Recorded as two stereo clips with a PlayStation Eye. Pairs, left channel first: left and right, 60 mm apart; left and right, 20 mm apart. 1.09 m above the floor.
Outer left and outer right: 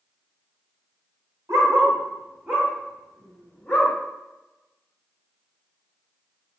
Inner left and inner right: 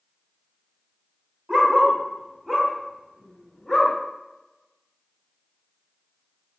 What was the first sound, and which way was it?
A dog barking, 45° right (ahead or behind).